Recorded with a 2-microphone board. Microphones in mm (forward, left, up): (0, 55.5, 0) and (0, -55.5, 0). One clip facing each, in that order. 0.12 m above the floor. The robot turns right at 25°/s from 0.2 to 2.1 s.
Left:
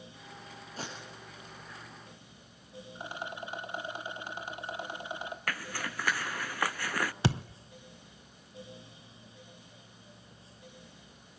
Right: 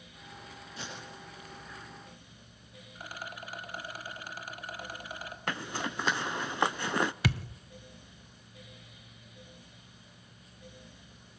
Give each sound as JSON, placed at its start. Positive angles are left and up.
{"t": 0.8, "sound": "tape being pulled", "side_deg": 40, "distance_m": 6.5}
{"t": 3.0, "sound": "a rattle", "side_deg": 25, "distance_m": 1.5}
{"t": 5.5, "sound": "a zipper", "side_deg": -20, "distance_m": 0.5}
{"t": 7.2, "sound": "a thud", "side_deg": 30, "distance_m": 0.6}